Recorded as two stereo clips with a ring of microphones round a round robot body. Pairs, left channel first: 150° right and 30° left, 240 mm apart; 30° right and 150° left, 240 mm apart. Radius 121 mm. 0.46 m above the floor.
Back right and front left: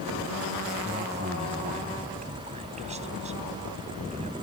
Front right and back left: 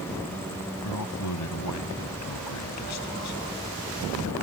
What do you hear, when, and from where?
0.8 s a man speaking: 30° right